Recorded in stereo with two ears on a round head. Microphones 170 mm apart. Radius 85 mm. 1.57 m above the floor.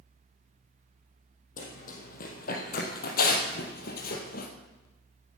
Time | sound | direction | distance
1.6 | running footsteps | 45° left (ahead or behind) | 3 m